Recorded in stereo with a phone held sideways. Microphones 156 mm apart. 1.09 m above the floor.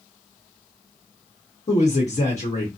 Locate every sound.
1.7 s a man speaking: 50° left (ahead or behind), 1.0 m